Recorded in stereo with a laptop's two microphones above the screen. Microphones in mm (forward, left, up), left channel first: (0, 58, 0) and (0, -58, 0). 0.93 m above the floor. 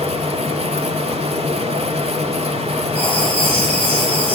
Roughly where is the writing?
Centre.